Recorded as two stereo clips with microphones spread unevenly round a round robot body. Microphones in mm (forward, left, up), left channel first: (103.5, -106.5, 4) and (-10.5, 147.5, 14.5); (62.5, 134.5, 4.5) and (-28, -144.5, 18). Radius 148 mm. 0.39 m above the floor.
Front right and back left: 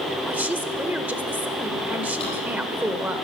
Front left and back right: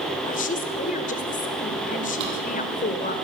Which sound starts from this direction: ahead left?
A woman speaking, at 0.3 s.